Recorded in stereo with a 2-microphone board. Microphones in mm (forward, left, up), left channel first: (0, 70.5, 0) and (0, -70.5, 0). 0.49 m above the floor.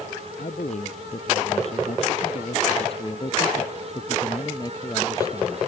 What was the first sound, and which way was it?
A man speaking, 60° left (ahead or behind).